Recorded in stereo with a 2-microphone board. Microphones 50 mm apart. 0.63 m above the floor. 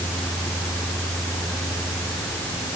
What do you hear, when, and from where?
Only background noise.